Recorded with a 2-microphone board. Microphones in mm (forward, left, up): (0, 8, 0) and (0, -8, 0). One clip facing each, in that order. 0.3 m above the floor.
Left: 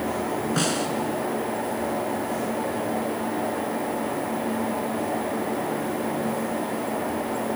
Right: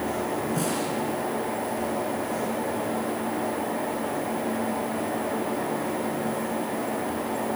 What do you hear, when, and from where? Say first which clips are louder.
0.6 s a snare drum: left 3 dB; 40° left (ahead or behind), 3 m